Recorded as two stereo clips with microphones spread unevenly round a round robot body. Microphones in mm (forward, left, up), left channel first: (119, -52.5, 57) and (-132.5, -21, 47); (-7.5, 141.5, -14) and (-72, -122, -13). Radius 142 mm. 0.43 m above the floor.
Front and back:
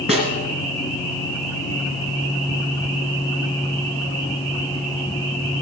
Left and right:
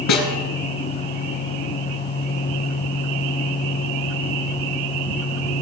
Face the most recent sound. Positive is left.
turn(degrees=105)